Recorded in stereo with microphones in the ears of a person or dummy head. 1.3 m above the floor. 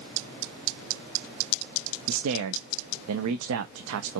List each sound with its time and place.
2.1 s a man speaking: 75° right (ahead or behind), 0.5 m